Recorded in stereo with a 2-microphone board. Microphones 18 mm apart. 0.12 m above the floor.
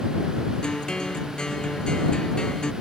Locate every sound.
0.6 s a guitar: 50° left (ahead or behind)